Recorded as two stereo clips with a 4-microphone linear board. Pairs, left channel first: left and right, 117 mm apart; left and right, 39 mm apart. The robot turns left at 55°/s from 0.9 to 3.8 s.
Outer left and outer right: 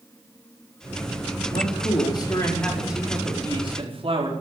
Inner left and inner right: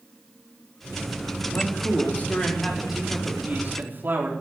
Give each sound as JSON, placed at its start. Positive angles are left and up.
{"t": 1.5, "sound": "a man speaking", "azimuth_deg": 75, "distance_m": 5.0}